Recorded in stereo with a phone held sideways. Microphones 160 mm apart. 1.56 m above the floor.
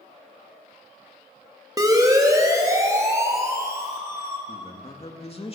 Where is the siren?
25° right (ahead or behind), 3 m; by 4.4 s 15° right (ahead or behind), 4.5 m.